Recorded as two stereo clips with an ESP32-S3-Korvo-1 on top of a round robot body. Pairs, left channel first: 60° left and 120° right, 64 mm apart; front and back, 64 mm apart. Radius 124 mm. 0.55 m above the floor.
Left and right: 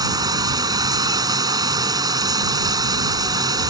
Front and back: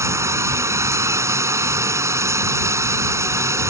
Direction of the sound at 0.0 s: 135° right.